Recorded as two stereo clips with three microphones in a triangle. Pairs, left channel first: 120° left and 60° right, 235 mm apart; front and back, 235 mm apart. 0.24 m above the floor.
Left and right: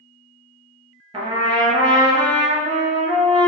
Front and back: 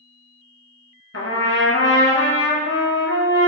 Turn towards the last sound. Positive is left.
turn(degrees=15)